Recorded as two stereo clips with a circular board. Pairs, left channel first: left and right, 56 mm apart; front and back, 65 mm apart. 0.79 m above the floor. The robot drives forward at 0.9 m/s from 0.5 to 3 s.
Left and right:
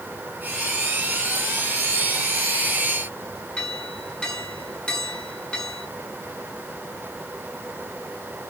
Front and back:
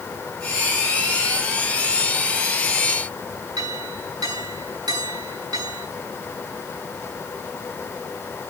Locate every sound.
3.6 s a clink: 165° left, 6 m